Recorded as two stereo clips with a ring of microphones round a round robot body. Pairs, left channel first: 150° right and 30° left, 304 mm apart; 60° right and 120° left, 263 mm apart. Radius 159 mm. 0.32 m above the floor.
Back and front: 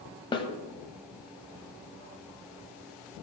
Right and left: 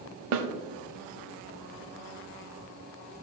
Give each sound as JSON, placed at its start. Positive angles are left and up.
{"t": 0.3, "sound": "a snare drum", "azimuth_deg": 135, "distance_m": 0.8}